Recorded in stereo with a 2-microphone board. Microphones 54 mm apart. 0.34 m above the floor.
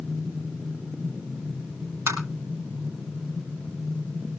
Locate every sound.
2.1 s tapping: 55° right (ahead or behind), 6 m